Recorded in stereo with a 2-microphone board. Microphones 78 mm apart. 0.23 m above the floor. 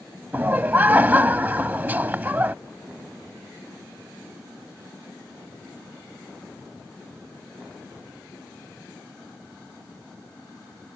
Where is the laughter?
25° right (ahead or behind).